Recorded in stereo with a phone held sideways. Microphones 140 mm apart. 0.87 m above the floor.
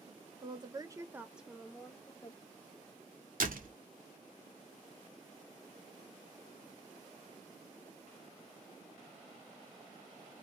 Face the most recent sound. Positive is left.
turn(degrees=-85)